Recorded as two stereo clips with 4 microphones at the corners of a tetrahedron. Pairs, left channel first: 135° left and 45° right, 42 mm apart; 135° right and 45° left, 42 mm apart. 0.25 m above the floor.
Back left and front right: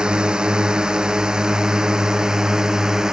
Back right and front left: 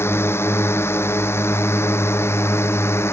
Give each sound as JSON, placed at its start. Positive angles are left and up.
{"t": 0.0, "sound": "a drone", "azimuth_deg": -115}